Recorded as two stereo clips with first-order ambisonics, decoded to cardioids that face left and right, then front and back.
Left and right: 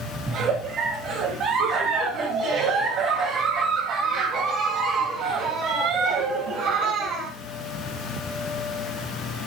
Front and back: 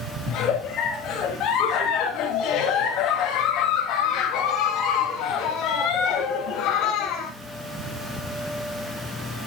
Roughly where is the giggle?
Ahead right.